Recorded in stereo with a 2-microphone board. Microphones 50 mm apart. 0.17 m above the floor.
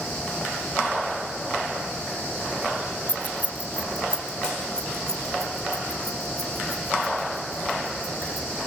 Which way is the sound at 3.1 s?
40° left (ahead or behind).